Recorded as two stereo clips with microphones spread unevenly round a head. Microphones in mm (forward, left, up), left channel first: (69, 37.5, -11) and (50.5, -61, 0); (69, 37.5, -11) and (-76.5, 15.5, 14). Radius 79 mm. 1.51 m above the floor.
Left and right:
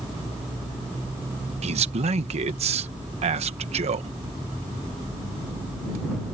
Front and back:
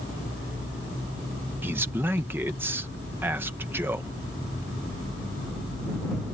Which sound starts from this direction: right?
A man speaking, at 1.6 s.